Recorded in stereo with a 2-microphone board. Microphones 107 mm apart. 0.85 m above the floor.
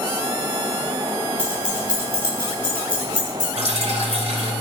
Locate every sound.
1.4 s keys jangling: 10° right (ahead or behind), 5 m
3.6 s dripping: 80° right, 2.5 m